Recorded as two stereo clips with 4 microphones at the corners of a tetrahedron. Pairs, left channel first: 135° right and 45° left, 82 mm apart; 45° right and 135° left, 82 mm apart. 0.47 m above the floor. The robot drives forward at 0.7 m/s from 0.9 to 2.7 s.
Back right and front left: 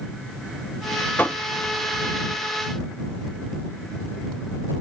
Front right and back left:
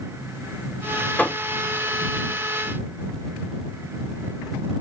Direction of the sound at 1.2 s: 90° right.